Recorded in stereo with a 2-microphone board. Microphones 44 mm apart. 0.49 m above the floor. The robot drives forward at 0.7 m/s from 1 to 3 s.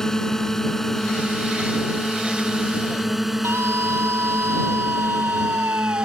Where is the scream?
70° right (ahead or behind).